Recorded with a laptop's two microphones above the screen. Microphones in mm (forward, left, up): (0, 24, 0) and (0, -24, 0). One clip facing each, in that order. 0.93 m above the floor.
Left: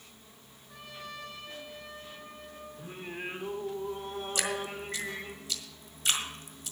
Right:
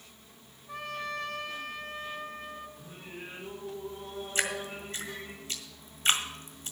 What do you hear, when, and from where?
0.7 s a trumpet: 70° right (ahead or behind), 1.3 m
2.8 s singing: 55° left (ahead or behind), 1.5 m
4.3 s dripping: 35° right (ahead or behind), 1.6 m